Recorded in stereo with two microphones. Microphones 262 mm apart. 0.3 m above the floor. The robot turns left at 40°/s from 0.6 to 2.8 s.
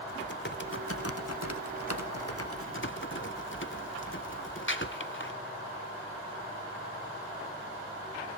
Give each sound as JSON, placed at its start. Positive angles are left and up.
{"t": 0.1, "sound": "typing on a keyboard", "azimuth_deg": 135, "distance_m": 0.8}